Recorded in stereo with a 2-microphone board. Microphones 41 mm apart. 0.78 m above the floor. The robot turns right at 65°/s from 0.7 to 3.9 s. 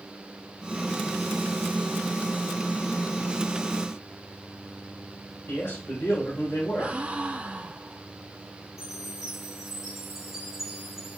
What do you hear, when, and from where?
5.5 s a man speaking: 70° left (ahead or behind), 4.5 m
6.8 s a gasp: 30° right (ahead or behind), 1.1 m
8.8 s a chime: 5° right (ahead or behind), 5.5 m